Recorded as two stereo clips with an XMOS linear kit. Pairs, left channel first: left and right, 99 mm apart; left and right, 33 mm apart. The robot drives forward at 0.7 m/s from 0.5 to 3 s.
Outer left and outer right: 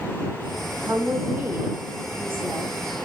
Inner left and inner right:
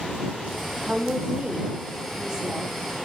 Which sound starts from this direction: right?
A woman speaking, at 0.8 s.